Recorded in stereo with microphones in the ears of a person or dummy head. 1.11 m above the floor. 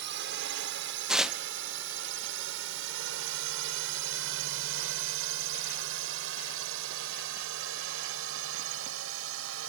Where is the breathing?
No breathing in this recording.